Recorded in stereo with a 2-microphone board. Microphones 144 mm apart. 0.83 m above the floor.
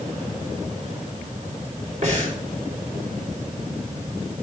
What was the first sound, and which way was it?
Breathing, 60° right (ahead or behind).